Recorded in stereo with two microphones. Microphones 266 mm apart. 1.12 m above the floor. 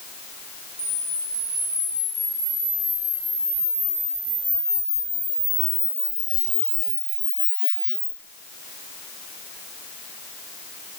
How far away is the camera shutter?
About 2.5 m.